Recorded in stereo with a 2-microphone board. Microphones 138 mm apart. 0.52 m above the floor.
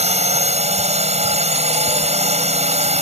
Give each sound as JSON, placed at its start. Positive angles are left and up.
{"t": 0.0, "sound": "a drone", "side_deg": -50}